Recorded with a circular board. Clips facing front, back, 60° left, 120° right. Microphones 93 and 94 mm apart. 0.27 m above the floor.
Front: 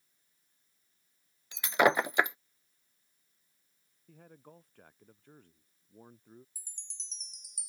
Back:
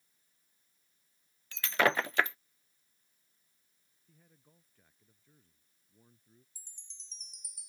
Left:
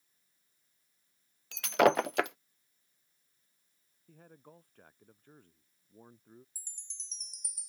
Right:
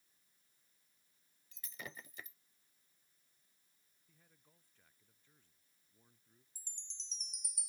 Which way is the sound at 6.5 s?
10° left.